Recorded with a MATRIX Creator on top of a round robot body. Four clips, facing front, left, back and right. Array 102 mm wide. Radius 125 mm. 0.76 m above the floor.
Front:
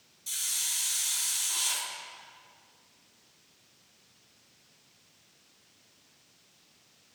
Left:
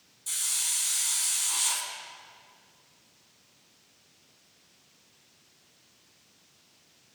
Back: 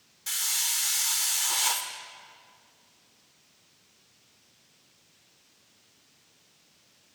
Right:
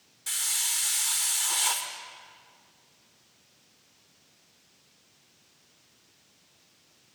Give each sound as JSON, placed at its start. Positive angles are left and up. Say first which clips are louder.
{"t": 0.3, "sound": "a hiss", "louder": "right 4 dB, back 7 dB", "azimuth_deg": -145, "distance_m": 2.0}